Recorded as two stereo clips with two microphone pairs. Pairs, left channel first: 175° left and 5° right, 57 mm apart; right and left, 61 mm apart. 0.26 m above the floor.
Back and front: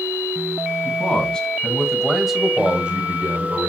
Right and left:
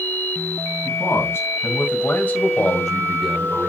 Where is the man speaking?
125° right, 2 m; by 3.7 s 5° left, 1.7 m.